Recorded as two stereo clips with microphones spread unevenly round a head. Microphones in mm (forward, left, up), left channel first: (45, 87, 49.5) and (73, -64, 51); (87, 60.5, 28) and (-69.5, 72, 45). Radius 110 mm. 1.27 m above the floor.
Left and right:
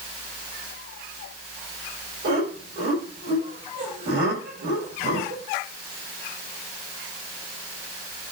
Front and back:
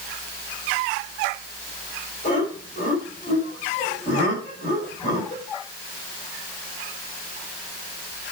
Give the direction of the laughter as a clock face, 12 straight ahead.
2 o'clock.